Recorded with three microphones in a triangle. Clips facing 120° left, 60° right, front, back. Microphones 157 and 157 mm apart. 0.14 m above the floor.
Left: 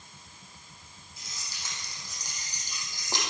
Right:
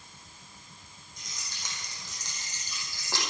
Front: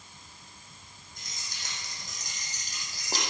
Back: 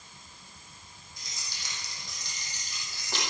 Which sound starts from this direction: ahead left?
Keys jangling, at 1.2 s.